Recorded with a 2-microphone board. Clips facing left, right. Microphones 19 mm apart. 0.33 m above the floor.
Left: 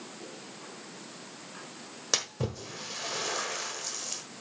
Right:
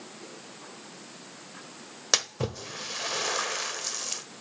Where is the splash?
25° right (ahead or behind), 1.3 m.